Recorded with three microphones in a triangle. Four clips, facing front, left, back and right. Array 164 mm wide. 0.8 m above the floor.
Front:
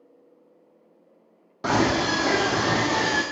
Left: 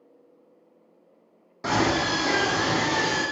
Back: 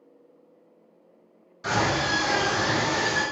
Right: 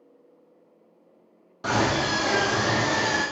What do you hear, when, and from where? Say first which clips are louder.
1.6 s a scream: even, front 3 dB; 10° left, 2 m; by 3.2 s 10° right, 2.5 m